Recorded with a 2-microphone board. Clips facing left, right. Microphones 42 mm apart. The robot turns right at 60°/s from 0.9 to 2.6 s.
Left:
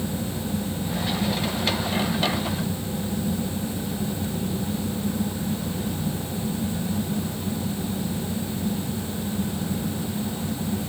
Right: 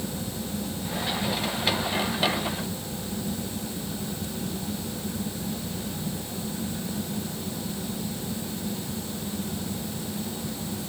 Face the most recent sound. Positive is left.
No sound to turn to.